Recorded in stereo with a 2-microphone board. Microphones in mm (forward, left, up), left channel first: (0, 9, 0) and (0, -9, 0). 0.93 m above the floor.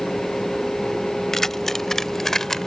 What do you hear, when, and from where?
1.3 s keys jangling: 15° left (ahead or behind); by 2.7 s 20° left (ahead or behind)